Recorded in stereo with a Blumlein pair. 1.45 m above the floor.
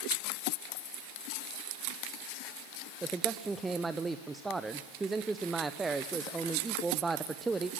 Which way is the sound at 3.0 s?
10° right.